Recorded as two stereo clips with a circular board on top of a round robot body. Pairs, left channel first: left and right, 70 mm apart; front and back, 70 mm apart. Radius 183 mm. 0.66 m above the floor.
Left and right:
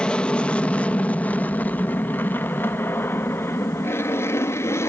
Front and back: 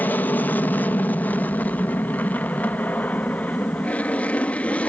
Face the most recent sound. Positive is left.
turn(degrees=65)